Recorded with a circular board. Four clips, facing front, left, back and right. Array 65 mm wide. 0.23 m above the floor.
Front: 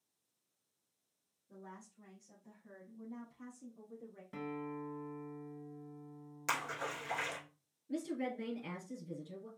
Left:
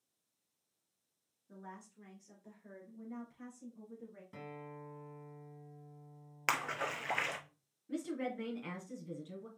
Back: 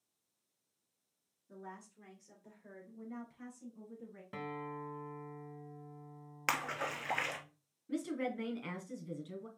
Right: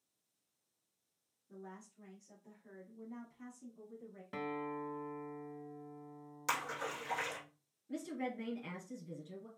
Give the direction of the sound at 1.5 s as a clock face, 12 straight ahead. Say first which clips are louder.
Left 1 dB, back 3 dB; 8 o'clock.